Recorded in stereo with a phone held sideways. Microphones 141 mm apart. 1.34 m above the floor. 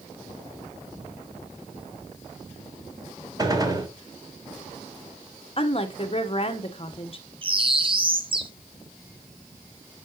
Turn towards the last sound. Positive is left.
turn(degrees=-35)  # may be behind; listen again after turning